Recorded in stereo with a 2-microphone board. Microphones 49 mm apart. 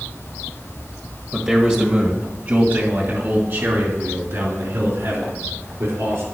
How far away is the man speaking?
About 1.4 m.